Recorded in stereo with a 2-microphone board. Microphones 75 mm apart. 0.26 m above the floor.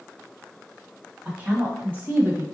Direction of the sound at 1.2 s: 20° right (ahead or behind).